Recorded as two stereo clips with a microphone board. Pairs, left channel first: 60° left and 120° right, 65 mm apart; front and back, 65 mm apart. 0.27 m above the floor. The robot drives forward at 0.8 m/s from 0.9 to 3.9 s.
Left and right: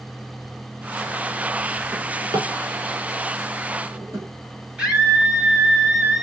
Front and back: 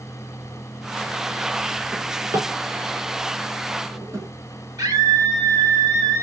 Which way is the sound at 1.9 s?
135° right.